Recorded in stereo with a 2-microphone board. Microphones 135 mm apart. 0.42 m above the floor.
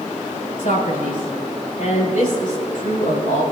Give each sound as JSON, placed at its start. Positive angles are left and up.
{"t": 0.6, "sound": "a man speaking", "side_deg": 75, "distance_m": 6.0}